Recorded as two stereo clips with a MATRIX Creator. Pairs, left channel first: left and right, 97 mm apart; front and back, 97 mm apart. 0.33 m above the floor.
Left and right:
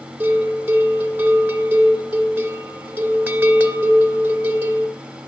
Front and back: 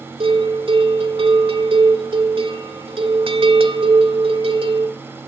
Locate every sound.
0.2 s a bell: 160° right, 2.5 m